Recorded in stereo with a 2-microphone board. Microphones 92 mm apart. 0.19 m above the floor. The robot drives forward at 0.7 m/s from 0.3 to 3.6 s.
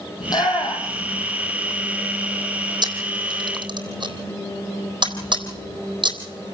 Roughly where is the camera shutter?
Right.